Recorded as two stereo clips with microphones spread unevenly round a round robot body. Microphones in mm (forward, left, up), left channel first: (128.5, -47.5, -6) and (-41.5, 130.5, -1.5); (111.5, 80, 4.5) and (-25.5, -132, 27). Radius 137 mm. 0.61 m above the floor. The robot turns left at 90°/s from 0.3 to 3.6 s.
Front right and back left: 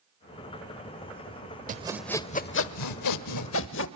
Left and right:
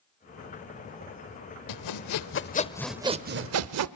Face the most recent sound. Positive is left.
turn(degrees=-100)